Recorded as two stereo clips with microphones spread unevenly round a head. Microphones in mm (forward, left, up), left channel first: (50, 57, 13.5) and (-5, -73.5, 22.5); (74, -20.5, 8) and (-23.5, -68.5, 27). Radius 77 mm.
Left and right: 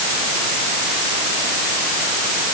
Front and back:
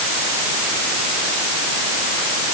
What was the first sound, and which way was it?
Only background noise.